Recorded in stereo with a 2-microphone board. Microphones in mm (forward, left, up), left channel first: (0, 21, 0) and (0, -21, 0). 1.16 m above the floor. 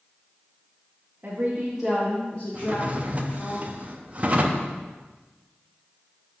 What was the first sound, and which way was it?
A woman speaking, 45° right (ahead or behind).